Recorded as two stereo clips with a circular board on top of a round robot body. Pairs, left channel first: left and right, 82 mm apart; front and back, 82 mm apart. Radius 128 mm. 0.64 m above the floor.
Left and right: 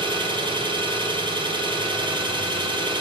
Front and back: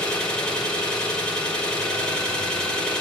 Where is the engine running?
80° right, 2.5 m.